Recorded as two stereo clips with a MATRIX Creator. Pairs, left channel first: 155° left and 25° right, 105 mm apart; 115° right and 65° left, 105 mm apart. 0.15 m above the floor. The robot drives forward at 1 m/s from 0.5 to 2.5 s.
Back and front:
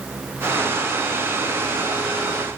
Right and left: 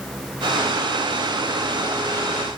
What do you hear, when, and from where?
Only background noise.